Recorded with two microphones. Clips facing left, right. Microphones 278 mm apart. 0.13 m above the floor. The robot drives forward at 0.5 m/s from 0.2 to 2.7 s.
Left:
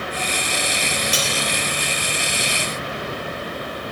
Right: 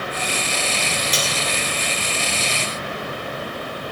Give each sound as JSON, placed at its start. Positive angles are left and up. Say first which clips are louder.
{"t": 1.1, "sound": "cutlery clinking", "louder": "even", "side_deg": 10, "distance_m": 2.0}